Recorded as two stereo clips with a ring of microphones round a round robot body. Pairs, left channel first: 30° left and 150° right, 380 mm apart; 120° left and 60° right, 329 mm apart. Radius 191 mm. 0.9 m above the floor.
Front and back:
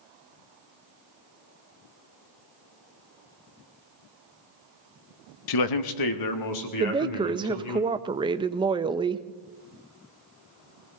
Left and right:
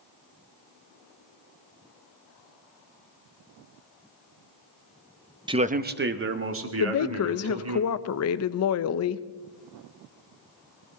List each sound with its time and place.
5.5 s a man speaking: 15° left, 0.9 m; by 7.8 s 15° right, 3.5 m
6.8 s a woman speaking: 135° left, 0.6 m